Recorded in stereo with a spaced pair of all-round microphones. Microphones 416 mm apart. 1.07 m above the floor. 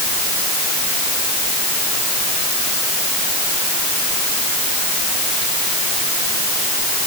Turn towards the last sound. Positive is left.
No sound to turn to.